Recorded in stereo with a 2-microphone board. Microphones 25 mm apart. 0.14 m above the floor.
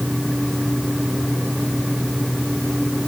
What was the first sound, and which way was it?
Only background noise.